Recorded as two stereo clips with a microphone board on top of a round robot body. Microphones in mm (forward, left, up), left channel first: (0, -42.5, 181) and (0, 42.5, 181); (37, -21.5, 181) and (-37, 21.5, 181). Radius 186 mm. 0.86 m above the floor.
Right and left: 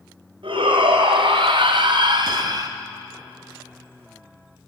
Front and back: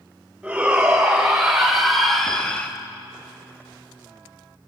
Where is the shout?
70° left, 5.5 m; by 2.7 s 45° left, 2 m.